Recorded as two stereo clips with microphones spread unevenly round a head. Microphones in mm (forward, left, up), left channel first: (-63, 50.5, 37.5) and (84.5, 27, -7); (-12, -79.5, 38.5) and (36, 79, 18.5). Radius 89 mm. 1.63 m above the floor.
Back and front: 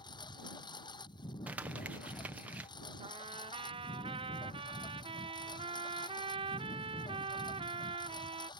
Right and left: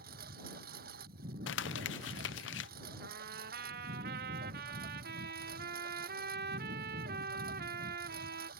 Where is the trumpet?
45° left.